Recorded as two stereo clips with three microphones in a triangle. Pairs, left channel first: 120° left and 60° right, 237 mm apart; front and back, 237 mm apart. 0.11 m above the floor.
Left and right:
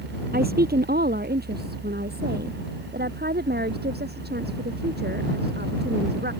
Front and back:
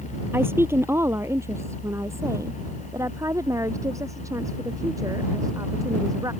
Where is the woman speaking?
100° right; by 6.3 s 105° right.